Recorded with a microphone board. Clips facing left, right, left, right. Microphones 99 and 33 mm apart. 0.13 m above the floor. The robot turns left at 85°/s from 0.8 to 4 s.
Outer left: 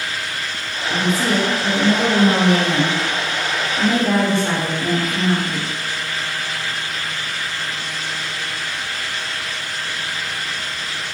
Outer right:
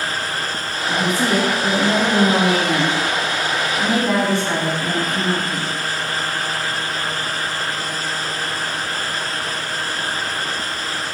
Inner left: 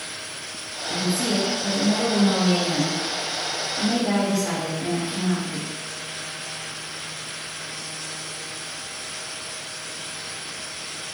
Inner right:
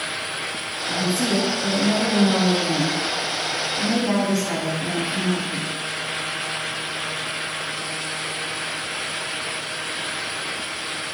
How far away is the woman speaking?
About 2.0 m.